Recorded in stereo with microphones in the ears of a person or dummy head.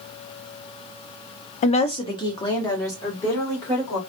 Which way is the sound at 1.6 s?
35° left (ahead or behind).